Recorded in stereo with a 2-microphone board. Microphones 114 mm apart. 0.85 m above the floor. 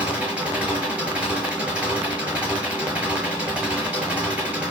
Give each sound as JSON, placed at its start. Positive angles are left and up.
{"t": 0.0, "sound": "an engine running", "side_deg": -10, "distance_m": 6.5}